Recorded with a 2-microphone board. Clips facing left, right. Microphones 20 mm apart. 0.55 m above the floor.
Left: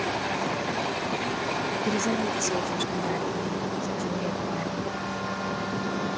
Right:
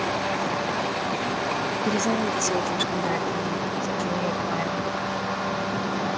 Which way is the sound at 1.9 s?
20° right (ahead or behind).